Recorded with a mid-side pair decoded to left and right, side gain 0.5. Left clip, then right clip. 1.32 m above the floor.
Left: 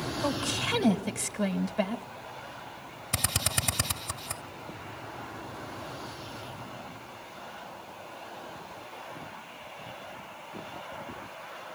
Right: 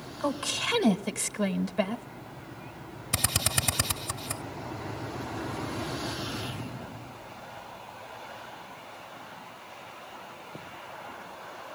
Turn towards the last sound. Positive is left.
turn(degrees=-10)